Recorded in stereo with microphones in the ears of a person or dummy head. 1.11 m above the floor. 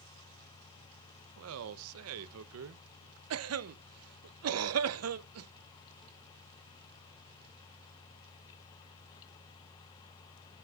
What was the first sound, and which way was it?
A man speaking, 80° right.